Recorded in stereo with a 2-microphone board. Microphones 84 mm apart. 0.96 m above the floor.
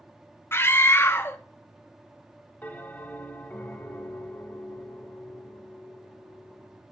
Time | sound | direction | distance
0.5 | a scream | 30° left (ahead or behind) | 0.5 m
2.6 | a bell | 20° left (ahead or behind) | 1.4 m